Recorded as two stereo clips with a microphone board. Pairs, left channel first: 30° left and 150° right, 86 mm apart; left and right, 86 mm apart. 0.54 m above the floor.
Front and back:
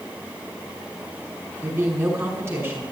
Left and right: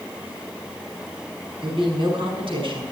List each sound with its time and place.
1.6 s a woman speaking: 90° right, 5.5 m